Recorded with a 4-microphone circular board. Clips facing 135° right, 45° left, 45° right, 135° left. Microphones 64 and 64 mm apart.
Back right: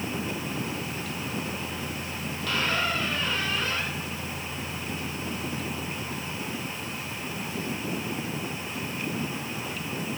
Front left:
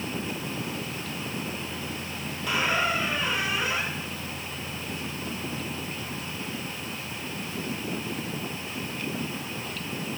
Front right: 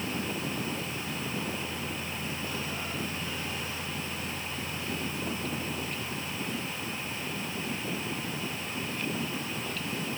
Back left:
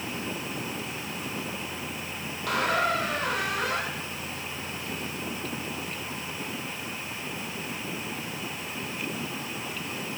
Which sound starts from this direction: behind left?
A squeak, at 2.5 s.